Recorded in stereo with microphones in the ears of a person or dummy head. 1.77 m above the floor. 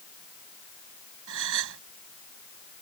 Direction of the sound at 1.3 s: 75° right (ahead or behind).